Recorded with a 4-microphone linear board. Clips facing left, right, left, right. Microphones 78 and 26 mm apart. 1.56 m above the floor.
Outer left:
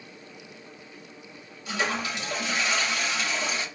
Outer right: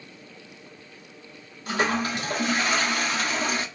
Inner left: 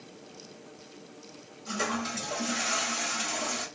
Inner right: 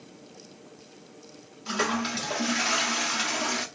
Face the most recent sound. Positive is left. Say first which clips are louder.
# outer right 4 dB, inner right 4 dB
turn(degrees=-50)  # may be behind; listen again after turning